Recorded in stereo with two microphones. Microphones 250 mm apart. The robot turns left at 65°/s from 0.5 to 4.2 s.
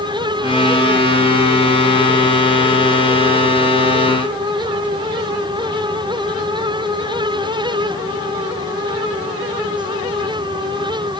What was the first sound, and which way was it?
Only background noise.